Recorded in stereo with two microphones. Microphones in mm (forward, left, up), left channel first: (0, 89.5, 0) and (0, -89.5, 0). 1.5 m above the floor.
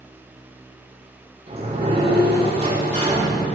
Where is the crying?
I don't hear crying.